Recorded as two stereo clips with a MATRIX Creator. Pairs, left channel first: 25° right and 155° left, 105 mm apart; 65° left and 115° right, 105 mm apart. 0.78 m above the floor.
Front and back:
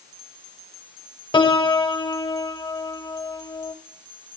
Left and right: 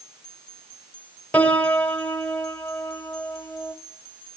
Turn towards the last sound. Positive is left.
turn(degrees=-5)